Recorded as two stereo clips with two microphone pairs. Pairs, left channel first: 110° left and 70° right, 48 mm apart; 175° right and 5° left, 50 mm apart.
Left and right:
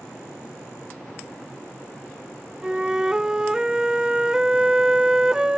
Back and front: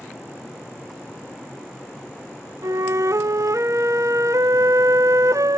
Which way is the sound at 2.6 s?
10° left.